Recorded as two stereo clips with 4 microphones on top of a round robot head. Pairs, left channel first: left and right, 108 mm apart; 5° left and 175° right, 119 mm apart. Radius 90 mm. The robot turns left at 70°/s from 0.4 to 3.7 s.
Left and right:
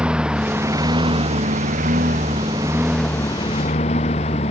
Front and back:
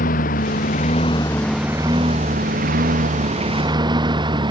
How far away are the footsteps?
No footsteps in this recording.